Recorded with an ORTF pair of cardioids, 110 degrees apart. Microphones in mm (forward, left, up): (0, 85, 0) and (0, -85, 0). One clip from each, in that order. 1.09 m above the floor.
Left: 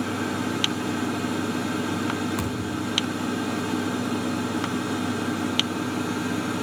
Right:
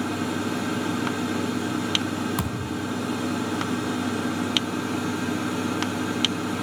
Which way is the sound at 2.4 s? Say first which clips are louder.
Left 1 dB; 25° right.